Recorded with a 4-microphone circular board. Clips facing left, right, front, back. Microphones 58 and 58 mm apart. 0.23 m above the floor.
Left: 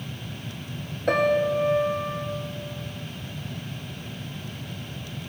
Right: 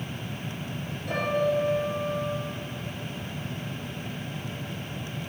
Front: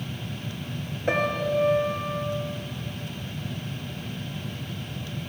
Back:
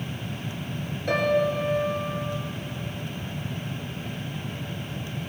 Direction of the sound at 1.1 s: 65° left.